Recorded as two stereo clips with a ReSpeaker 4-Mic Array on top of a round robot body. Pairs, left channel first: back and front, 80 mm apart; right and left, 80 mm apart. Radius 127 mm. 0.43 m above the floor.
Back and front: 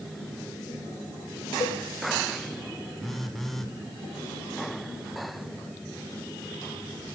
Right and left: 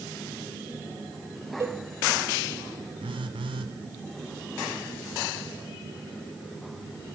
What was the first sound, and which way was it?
A cowbell, 150° left.